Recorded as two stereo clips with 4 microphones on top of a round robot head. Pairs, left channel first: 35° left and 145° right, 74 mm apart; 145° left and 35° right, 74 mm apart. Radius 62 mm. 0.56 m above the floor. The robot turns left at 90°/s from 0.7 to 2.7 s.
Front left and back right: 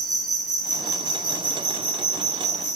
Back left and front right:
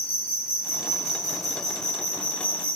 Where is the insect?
65° right, 1.9 m; by 2.8 s 115° left, 1.9 m.